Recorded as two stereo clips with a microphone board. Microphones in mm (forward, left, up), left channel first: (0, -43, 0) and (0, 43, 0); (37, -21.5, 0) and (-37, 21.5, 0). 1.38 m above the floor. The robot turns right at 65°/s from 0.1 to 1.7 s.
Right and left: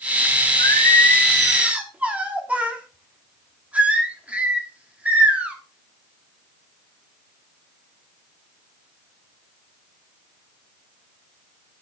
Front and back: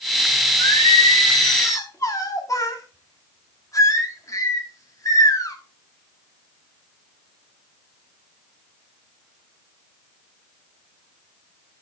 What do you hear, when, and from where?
0.6 s singing: 55° right, 1.7 m; by 5.5 s 15° left, 1.7 m